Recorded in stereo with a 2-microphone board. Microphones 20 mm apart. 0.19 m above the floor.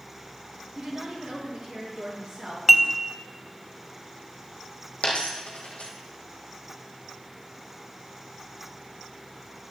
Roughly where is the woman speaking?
Right.